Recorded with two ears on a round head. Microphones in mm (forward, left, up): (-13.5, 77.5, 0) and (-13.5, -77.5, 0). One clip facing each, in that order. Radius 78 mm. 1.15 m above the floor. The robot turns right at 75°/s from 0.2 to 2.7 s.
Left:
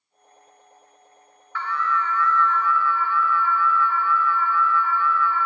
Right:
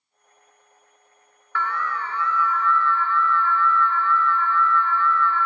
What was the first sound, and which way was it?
An alarm, 80° right.